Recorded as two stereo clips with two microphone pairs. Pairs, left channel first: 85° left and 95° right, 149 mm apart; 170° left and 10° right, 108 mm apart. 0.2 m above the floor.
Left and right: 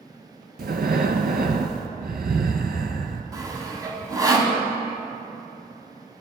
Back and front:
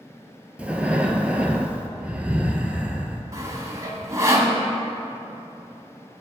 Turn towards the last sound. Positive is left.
turn(degrees=-45)